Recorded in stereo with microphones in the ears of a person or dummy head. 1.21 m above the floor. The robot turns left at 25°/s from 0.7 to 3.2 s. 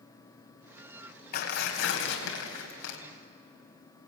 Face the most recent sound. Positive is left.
turn(degrees=85)